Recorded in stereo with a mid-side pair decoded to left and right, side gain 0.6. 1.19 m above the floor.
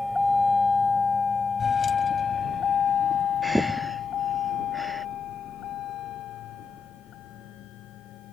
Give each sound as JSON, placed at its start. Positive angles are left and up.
{"t": 0.0, "sound": "a vehicle", "azimuth_deg": 10}
{"t": 3.4, "sound": "breathing", "azimuth_deg": 0}